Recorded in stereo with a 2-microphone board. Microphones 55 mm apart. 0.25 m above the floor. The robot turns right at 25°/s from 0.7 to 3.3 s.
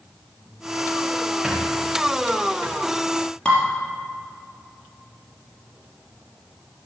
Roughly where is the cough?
I don't hear a cough.